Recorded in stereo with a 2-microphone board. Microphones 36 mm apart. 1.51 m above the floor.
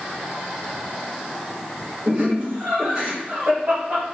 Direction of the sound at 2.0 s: 50° right (ahead or behind).